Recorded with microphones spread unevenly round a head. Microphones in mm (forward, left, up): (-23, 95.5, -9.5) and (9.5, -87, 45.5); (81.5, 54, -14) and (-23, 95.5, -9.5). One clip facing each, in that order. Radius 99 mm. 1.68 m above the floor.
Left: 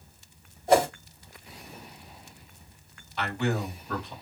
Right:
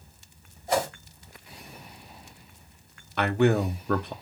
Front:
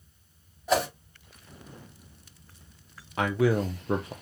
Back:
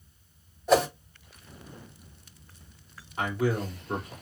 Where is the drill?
No drill in this recording.